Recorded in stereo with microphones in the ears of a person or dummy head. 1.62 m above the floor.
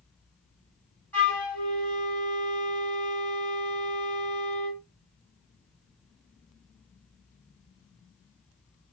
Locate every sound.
1.1 s a flute: 10° left (ahead or behind), 2 m